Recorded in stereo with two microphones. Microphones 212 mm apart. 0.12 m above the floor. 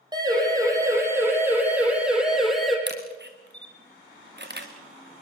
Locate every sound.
0.1 s a siren: 20° right (ahead or behind), 6.5 m; by 2.8 s centre (ahead or behind), 6 m
2.9 s a camera shutter: 55° right (ahead or behind), 3 m